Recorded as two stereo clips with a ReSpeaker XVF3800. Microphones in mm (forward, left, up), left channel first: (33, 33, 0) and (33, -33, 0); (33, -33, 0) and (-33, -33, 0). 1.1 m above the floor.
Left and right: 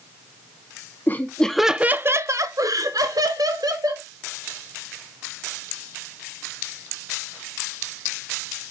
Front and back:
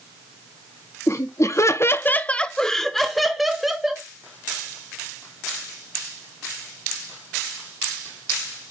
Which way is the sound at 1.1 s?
35° left.